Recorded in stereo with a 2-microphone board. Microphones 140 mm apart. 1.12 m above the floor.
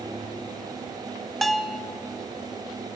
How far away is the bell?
About 0.5 m.